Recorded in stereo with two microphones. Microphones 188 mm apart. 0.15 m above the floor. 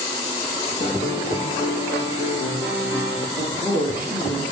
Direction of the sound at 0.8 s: 75° left (ahead or behind).